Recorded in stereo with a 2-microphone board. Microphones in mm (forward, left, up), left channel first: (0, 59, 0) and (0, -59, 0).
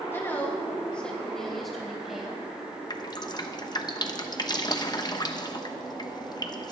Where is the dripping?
35° left (ahead or behind), 0.8 m.